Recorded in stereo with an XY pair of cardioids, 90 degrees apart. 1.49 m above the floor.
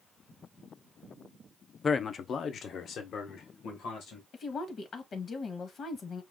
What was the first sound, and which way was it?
A man speaking, 35° left.